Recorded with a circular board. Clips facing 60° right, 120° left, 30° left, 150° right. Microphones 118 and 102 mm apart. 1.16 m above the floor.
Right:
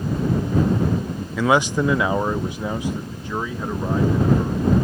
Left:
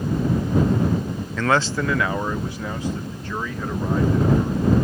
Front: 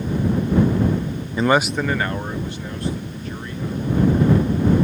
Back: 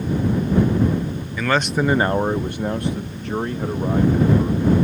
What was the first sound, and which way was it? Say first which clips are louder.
A man speaking: right 3 dB, front 2 dB; 15° left.